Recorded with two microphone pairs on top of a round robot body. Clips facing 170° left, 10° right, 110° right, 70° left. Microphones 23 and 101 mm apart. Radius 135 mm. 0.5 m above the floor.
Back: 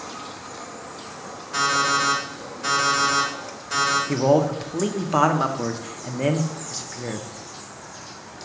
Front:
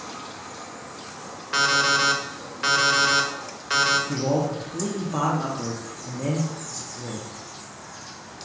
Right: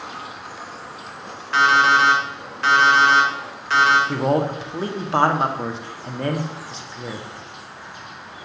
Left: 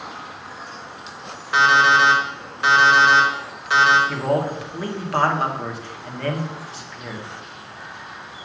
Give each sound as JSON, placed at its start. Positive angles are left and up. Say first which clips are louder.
{"t": 1.5, "sound": "an alarm clock", "louder": "front 1 dB, even", "azimuth_deg": -5, "distance_m": 1.6}
{"t": 4.1, "sound": "a man speaking", "louder": "back 5 dB, right 2 dB", "azimuth_deg": -175, "distance_m": 1.1}